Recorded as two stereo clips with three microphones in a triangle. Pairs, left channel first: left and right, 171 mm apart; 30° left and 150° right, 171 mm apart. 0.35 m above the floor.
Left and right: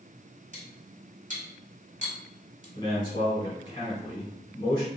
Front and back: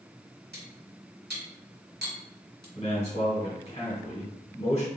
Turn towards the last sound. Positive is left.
turn(degrees=45)